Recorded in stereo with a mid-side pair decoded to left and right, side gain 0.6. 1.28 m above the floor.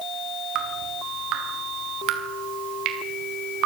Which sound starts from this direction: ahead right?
Dripping, at 0.6 s.